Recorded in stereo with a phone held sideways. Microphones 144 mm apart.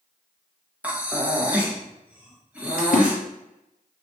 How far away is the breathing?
About 0.6 m.